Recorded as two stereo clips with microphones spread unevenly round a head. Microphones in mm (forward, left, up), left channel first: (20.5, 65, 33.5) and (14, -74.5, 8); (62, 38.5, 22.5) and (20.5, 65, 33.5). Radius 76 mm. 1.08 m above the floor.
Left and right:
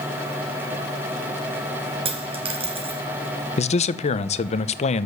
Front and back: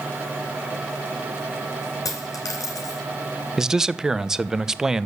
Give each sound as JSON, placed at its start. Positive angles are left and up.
{"t": 2.0, "sound": "a dropped coin", "azimuth_deg": -40, "distance_m": 2.5}
{"t": 3.6, "sound": "a man speaking", "azimuth_deg": 55, "distance_m": 0.9}